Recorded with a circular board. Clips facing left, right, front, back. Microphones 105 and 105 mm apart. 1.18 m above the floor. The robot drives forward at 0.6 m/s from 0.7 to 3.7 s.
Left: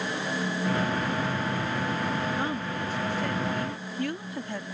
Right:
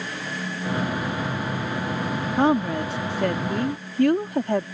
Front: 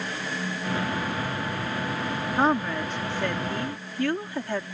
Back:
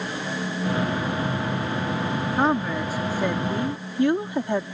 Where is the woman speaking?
90° right; by 4.7 s 110° right.